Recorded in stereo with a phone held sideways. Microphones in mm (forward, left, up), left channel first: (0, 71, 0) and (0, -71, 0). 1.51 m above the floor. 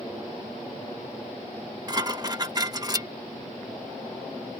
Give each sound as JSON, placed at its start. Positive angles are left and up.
{"t": 1.9, "sound": "dishes clattering", "side_deg": -25}